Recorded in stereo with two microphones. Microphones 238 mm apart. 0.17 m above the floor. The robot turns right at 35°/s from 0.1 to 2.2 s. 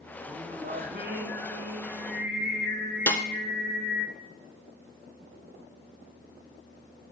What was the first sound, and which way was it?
Singing, 145° right.